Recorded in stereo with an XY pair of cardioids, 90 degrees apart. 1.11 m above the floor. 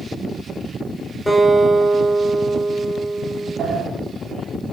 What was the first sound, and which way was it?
A guitar, 5° right.